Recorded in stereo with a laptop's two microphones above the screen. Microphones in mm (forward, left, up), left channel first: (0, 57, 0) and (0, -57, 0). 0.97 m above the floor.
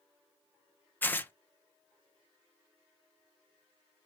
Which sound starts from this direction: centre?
Tearing paper, at 1.0 s.